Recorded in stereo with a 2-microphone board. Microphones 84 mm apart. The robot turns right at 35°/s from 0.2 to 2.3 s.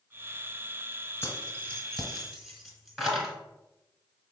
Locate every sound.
1.2 s keys jangling: 25° left (ahead or behind), 1.0 m; by 3.3 s centre (ahead or behind), 1.0 m